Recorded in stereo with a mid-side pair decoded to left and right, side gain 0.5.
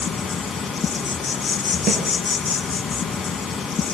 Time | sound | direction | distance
0.0 | an insect | 30° left | 4.5 m
1.9 | a snare drum | 45° right | 7 m